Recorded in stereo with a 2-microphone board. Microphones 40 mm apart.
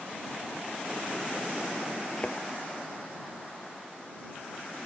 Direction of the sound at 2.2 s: 25° left (ahead or behind).